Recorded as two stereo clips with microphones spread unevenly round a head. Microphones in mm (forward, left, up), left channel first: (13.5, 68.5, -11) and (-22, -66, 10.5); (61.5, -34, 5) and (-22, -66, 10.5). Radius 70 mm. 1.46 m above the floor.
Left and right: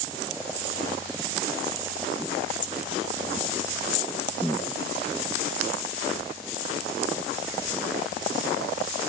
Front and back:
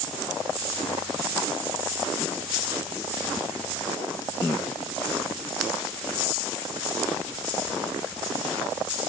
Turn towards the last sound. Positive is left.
No sound to turn to.